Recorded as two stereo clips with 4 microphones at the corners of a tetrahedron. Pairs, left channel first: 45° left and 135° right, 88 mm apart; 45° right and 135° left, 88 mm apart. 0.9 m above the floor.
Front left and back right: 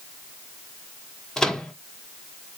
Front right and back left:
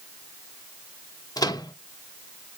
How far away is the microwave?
About 0.8 m.